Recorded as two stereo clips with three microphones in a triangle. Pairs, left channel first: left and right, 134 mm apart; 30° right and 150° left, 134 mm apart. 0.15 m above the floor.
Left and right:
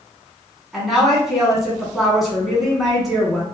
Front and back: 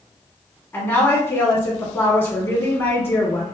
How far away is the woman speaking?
About 1.4 m.